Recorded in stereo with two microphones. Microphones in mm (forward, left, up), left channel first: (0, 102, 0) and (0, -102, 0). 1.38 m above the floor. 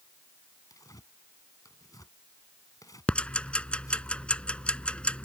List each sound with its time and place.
0.7 s tearing paper: 15° left (ahead or behind)
3.1 s ticking: 5° left (ahead or behind)